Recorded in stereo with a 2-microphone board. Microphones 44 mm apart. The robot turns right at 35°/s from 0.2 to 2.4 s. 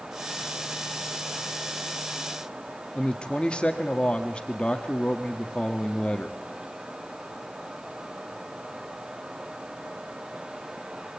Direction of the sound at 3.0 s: 25° left (ahead or behind).